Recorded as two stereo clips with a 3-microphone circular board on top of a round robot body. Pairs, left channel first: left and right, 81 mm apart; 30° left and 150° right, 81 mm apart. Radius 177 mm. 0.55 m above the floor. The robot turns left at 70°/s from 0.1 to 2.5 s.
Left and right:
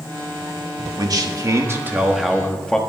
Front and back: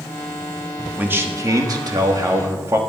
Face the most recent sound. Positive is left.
turn(degrees=165)